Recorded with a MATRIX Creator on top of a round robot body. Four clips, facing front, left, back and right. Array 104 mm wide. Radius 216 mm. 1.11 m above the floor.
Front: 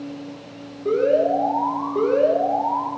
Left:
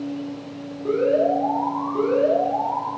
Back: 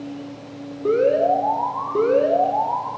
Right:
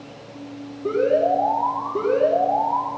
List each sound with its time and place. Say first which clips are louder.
0.8 s an alarm: even, back 1 dB; 165° right, 4 m